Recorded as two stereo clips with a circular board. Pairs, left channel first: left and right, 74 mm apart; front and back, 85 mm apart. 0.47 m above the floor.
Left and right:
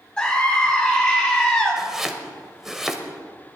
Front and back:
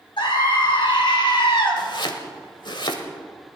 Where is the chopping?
10° right, 1.4 m.